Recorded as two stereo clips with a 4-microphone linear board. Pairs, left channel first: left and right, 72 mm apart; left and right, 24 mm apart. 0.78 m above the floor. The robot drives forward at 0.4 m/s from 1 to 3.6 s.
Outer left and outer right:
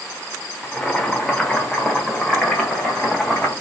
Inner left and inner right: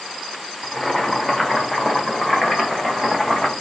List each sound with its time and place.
0.6 s boiling: 10° left (ahead or behind), 1.2 m; by 3.5 s 5° left (ahead or behind), 2 m